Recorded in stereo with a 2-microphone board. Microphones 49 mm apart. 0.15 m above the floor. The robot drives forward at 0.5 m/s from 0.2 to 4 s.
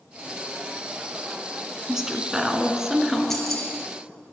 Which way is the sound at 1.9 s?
10° right (ahead or behind).